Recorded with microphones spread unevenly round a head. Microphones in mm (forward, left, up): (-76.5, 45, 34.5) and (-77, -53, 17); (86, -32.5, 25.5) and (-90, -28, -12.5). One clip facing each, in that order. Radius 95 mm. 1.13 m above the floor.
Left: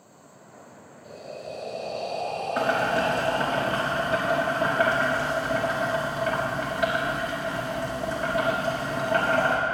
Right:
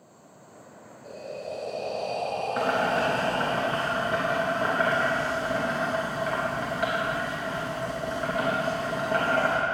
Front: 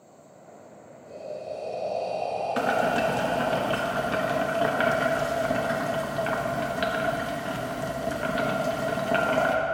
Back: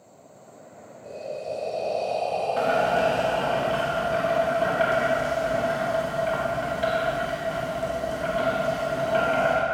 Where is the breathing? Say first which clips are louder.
Right 2 dB, back 3 dB; 135° right, 3 m.